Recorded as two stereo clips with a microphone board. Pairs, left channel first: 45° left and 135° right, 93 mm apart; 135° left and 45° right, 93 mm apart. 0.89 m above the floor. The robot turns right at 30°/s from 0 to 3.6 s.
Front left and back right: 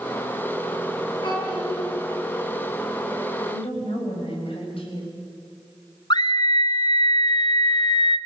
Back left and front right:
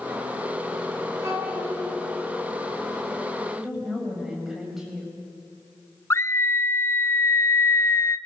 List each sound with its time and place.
1.2 s a child speaking: 15° left, 8 m; by 1.8 s 35° left, 8 m
3.5 s a woman speaking: 40° left, 6 m
6.1 s a scream: 75° left, 0.8 m